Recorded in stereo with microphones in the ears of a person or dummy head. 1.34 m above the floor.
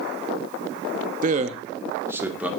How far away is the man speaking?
About 0.9 m.